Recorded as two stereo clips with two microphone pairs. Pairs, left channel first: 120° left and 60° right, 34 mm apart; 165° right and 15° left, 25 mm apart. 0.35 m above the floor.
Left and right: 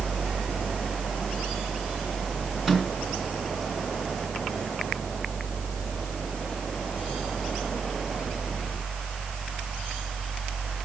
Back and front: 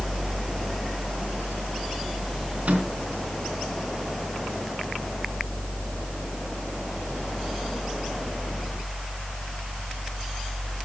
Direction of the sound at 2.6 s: 20° left.